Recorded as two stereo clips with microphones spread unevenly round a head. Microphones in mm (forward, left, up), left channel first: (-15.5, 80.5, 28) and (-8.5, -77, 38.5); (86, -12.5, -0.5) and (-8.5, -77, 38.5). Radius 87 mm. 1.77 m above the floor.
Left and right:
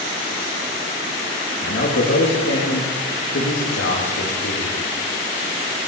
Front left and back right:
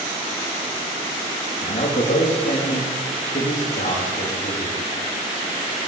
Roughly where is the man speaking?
Left.